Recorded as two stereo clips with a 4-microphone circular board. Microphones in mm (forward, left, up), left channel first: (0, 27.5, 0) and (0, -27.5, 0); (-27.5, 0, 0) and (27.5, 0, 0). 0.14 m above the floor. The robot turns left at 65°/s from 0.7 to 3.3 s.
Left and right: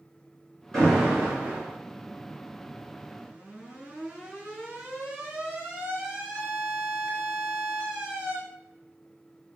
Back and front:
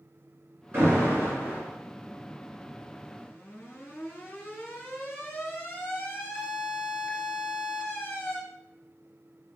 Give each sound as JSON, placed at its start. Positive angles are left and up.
{"t": 0.7, "sound": "an alarm", "azimuth_deg": 15, "distance_m": 1.9}